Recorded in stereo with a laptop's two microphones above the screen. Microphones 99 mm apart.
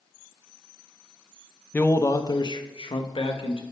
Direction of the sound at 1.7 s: 15° left (ahead or behind).